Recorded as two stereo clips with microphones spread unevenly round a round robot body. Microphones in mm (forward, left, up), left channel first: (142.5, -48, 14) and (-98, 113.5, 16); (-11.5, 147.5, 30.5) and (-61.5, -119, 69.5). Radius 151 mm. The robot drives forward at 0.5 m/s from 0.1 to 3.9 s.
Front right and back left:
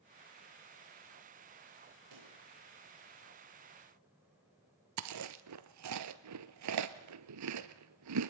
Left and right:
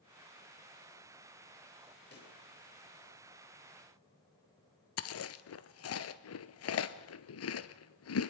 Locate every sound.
2.1 s a pop: 130° left, 8.5 m
5.0 s chewing: 115° left, 1.2 m